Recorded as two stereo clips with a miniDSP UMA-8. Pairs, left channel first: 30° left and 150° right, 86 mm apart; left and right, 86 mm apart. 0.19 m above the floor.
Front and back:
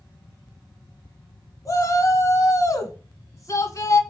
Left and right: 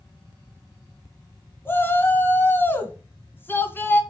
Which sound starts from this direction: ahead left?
A shout, at 1.6 s.